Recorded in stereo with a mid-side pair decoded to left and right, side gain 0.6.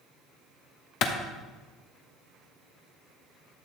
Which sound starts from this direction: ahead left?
A clap, at 1.0 s.